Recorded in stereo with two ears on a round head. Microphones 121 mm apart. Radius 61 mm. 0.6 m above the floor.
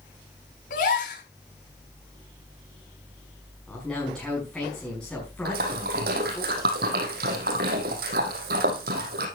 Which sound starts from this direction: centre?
A man speaking, at 3.7 s.